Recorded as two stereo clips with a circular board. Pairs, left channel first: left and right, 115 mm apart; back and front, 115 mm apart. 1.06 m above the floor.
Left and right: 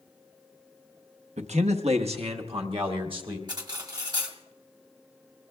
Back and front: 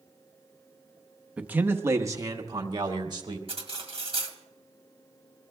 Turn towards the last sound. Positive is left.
turn(degrees=-35)